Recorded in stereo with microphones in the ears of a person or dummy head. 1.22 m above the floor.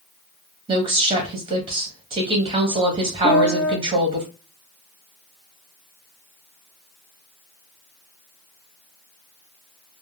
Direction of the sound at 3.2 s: 10° right (ahead or behind).